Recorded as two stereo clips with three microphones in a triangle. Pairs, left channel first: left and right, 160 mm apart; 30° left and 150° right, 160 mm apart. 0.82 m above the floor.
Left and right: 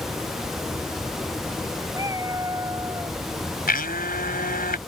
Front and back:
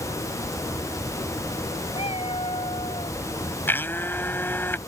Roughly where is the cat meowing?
Ahead.